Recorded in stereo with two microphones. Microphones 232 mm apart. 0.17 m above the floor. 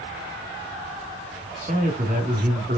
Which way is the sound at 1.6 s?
35° right (ahead or behind).